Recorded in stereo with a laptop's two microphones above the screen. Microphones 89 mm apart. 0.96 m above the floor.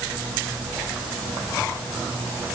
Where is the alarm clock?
No alarm clock in this recording.